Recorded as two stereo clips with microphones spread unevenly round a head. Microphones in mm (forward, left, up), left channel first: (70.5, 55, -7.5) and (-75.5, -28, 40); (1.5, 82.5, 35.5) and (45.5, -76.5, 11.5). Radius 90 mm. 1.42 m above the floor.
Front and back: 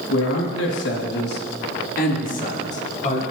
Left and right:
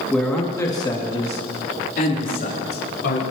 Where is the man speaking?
20° left, 2.5 m; by 3.2 s 80° left, 4.5 m.